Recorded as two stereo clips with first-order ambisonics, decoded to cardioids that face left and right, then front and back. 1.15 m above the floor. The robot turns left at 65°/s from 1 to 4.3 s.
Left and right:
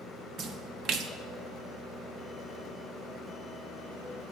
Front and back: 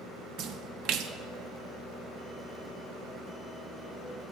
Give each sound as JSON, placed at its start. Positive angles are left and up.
{"t": 0.4, "sound": "a splash", "azimuth_deg": -140, "distance_m": 0.8}